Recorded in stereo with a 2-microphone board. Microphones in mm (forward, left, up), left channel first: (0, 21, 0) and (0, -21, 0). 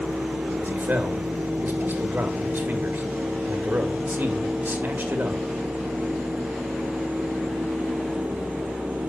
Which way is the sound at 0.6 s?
55° right (ahead or behind).